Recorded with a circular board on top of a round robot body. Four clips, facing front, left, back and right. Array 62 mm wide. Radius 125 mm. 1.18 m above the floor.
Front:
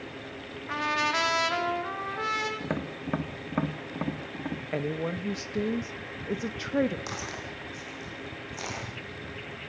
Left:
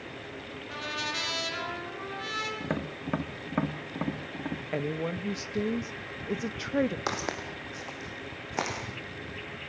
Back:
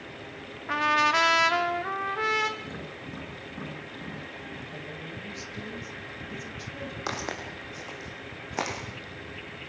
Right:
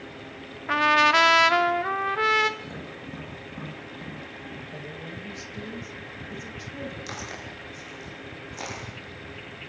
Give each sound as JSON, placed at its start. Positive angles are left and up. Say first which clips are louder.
{"t": 0.7, "sound": "a trumpet", "louder": "right 17 dB, back 5 dB", "azimuth_deg": -100, "distance_m": 1.2}
{"t": 2.6, "sound": "tapping", "louder": "left 5 dB, front 6 dB", "azimuth_deg": 45, "distance_m": 2.0}
{"t": 4.7, "sound": "a woman speaking", "louder": "left 7 dB, front 9 dB", "azimuth_deg": 40, "distance_m": 1.3}
{"t": 7.1, "sound": "footsteps", "louder": "left 4 dB, back 3 dB", "azimuth_deg": 115, "distance_m": 4.0}